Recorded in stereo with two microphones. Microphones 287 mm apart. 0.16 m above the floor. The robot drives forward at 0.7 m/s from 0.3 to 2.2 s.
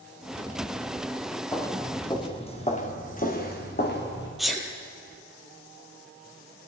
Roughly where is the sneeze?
Centre.